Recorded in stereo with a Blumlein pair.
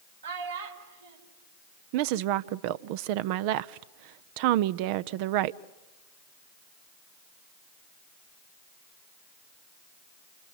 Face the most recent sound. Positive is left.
turn(degrees=-45)